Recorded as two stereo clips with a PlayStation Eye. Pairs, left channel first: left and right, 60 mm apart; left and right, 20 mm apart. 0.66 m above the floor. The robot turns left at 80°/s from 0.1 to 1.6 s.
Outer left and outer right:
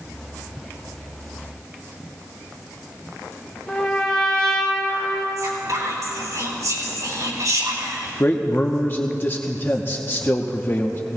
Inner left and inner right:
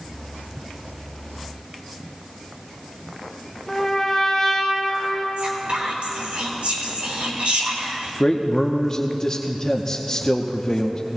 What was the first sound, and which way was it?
A trumpet, 15° left (ahead or behind).